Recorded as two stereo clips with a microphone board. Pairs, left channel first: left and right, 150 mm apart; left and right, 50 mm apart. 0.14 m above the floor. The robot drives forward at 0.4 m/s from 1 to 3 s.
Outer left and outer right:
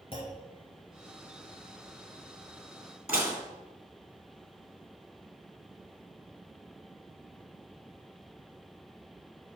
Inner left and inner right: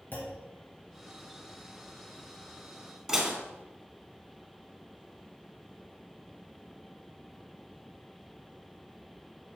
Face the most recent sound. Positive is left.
turn(degrees=-10)  # may be behind; listen again after turning